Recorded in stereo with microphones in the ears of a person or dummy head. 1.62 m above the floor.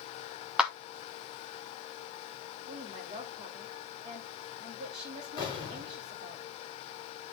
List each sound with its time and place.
0.6 s a clap: centre (ahead or behind), 0.8 m
2.7 s a woman speaking: 30° right (ahead or behind), 3 m
5.4 s an explosion: 25° left (ahead or behind), 4.5 m